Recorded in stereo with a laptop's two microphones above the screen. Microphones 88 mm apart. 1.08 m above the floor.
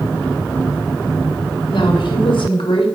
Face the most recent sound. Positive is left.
turn(degrees=65)  # may be behind; listen again after turning